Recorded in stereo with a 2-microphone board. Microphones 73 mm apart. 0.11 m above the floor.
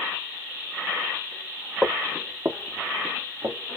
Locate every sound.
1.8 s footsteps: 15° right (ahead or behind), 0.8 m; by 3.6 s 80° right, 1.6 m